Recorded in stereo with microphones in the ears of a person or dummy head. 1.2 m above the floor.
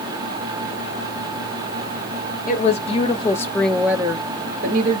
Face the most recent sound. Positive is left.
turn(degrees=-50)  # may be behind; listen again after turning